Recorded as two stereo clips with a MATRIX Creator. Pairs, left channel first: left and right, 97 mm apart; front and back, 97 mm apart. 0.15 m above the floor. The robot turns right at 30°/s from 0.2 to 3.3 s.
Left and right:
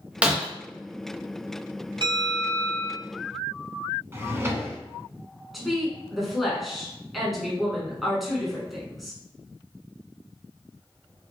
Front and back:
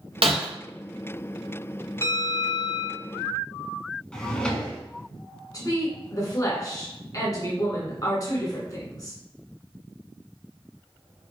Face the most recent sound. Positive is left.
turn(degrees=0)